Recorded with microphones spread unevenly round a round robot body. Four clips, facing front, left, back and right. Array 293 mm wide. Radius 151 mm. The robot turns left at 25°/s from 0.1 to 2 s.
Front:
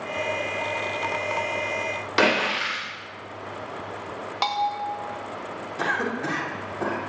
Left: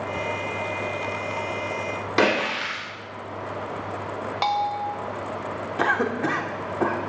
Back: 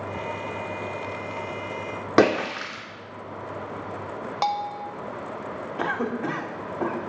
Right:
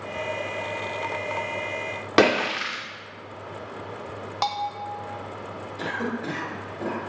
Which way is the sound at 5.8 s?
90° left.